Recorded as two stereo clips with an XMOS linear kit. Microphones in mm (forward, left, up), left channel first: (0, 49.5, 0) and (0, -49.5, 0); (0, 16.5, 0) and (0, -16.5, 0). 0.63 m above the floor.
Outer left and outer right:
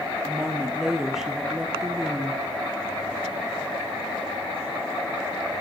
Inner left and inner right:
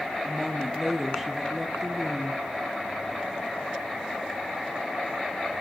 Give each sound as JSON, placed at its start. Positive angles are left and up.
{"t": 0.2, "sound": "a woman speaking", "side_deg": -5, "distance_m": 0.5}